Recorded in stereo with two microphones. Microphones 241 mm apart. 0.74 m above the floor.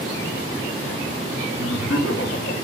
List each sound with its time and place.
1.6 s laughter: 55° left (ahead or behind), 1.7 m